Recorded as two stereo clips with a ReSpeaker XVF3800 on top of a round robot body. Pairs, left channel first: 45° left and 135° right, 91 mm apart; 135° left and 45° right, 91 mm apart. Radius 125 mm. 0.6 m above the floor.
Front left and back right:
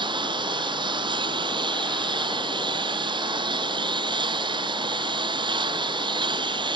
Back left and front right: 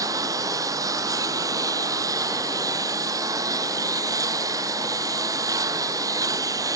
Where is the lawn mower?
100° right.